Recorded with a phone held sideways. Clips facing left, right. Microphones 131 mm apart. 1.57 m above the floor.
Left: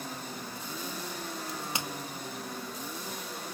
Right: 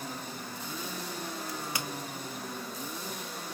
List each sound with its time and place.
1.5 s a crack: 25° left (ahead or behind), 0.9 m